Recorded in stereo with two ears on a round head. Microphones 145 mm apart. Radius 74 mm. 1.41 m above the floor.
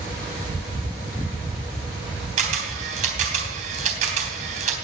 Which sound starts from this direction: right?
A camera shutter, at 2.4 s.